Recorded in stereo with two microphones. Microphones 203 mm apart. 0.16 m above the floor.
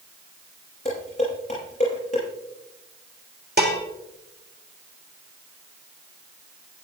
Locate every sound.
0.8 s dishes clattering: 30° left (ahead or behind), 7 m
3.6 s dishes clattering: 50° right (ahead or behind), 1.7 m